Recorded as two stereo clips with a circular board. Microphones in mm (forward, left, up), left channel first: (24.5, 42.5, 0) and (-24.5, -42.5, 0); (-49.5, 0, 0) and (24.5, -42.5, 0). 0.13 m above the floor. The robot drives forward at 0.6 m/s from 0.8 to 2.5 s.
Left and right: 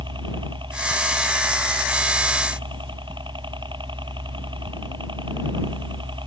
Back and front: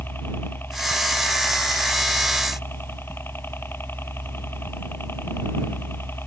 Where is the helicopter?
145° right; by 6.3 s 150° right.